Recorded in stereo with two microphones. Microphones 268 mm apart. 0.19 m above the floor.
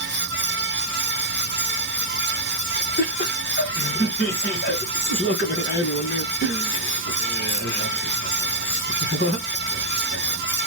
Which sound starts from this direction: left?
Laughter, at 3.0 s.